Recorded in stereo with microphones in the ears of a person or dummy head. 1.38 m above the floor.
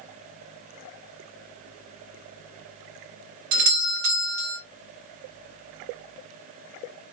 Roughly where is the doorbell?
Right.